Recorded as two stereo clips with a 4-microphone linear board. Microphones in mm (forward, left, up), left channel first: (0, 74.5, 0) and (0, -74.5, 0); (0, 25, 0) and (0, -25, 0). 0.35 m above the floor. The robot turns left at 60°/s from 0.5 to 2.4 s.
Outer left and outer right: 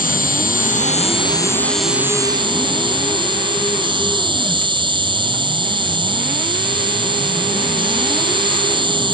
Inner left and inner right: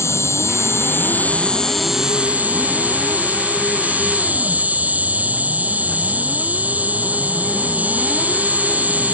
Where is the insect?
80° left; by 9.1 s 35° right.